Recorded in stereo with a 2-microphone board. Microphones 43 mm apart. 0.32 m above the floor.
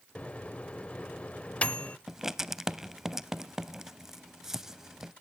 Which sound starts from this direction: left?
A microwave, at 0.1 s.